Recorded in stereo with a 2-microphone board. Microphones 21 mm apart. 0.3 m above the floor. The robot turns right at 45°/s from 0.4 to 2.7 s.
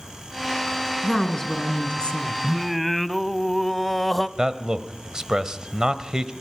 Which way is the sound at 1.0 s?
15° left.